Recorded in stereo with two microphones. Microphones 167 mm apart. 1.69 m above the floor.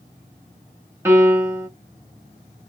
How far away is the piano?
About 1.6 m.